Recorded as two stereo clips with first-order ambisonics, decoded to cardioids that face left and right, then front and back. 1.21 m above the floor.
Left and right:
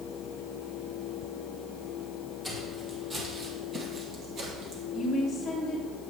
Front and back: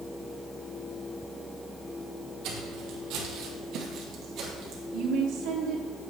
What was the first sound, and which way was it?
Footsteps, straight behind.